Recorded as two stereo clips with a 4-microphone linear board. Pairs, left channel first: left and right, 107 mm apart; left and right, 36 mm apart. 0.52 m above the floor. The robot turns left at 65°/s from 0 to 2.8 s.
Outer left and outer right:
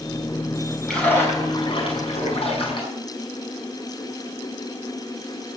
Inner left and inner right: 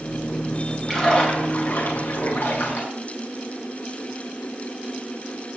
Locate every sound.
0.9 s a splash: 175° left, 6 m; by 2.9 s 50° left, 6 m